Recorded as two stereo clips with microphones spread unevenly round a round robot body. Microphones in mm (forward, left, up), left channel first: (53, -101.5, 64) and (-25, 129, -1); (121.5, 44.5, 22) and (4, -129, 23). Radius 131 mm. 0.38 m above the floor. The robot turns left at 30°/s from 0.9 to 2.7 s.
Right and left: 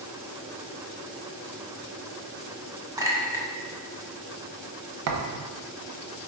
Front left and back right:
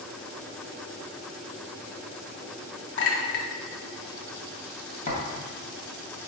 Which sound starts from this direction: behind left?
A thud, at 5.1 s.